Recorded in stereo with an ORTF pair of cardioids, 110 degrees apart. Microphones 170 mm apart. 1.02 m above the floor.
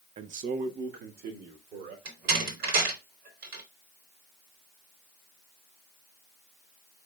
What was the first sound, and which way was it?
A man speaking, 40° right.